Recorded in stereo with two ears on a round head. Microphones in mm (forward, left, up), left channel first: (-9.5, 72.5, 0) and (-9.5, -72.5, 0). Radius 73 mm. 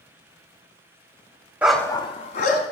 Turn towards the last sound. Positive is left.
turn(degrees=50)  # may be behind; listen again after turning